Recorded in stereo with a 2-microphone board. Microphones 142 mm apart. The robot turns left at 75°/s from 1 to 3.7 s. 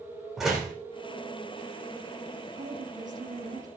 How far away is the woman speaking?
About 5 m.